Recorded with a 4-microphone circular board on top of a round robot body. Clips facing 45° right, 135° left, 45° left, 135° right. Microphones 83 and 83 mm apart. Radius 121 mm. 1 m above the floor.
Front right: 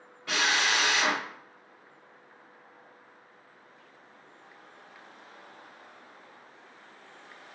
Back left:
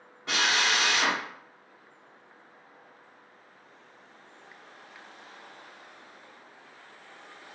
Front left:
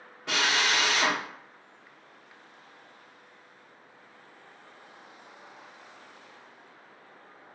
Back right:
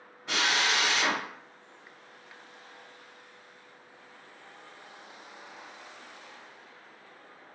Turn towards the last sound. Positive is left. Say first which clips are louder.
# even, front left 1 dB
turn(degrees=70)